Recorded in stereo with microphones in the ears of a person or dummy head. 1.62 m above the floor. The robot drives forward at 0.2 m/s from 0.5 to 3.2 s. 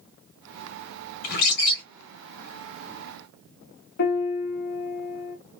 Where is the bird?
60° left (ahead or behind), 1.5 m; by 1.8 s 55° left (ahead or behind), 1.5 m.